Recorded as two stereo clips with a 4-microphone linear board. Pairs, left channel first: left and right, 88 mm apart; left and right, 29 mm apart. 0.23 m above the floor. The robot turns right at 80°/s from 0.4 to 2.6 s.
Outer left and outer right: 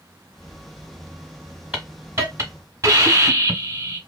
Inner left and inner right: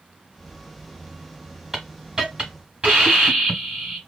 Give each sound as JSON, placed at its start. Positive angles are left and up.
{"t": 1.7, "sound": "a hiss", "azimuth_deg": -150, "distance_m": 1.3}